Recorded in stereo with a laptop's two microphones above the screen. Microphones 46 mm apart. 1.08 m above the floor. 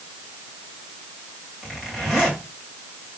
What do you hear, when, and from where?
1.6 s a zipper: 5° right (ahead or behind), 2.5 m